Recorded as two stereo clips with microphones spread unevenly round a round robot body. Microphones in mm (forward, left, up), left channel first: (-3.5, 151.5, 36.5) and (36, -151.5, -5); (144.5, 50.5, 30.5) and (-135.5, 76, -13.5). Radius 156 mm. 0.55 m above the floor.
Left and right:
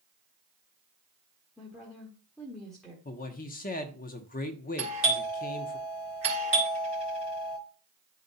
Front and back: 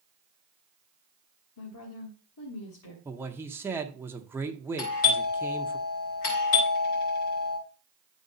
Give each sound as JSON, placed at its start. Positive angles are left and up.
{"t": 1.6, "sound": "a woman speaking", "azimuth_deg": 5, "distance_m": 1.6}
{"t": 3.0, "sound": "a man speaking", "azimuth_deg": 135, "distance_m": 0.9}
{"t": 4.8, "sound": "a doorbell", "azimuth_deg": -15, "distance_m": 3.5}